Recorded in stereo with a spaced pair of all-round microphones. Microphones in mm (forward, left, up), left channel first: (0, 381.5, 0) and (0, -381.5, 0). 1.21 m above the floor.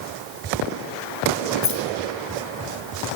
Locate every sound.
1.6 s keys jangling: 20° left (ahead or behind), 1.6 m